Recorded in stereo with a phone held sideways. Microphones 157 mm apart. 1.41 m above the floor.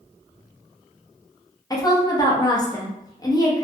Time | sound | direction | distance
1.7 | a woman speaking | 25° left (ahead or behind) | 0.7 m